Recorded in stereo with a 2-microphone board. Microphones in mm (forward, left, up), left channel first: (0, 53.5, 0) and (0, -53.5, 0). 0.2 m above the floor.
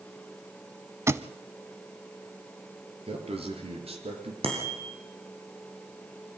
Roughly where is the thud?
Right.